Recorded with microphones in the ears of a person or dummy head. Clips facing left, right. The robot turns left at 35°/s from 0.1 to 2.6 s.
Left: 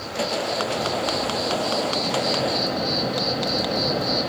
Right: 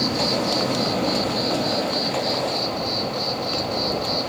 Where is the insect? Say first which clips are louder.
Right 4 dB; 110° right; by 4.3 s 165° left.